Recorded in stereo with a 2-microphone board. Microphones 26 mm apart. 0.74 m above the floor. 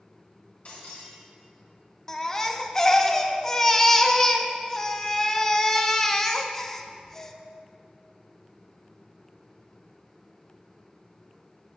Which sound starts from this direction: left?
Breaking glass, at 0.7 s.